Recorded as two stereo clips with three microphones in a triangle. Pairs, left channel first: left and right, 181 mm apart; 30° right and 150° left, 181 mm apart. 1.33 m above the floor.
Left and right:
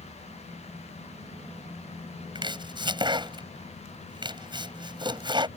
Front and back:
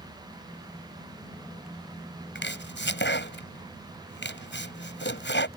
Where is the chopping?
25° right.